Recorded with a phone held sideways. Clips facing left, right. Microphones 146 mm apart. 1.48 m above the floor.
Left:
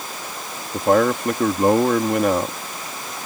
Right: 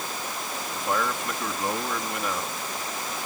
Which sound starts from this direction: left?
A man speaking, at 0.7 s.